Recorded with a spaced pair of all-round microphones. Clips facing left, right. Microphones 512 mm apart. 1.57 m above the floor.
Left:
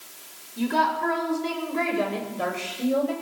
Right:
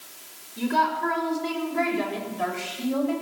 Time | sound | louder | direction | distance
0.6 | a woman speaking | left 1 dB | centre (ahead or behind) | 6.5 m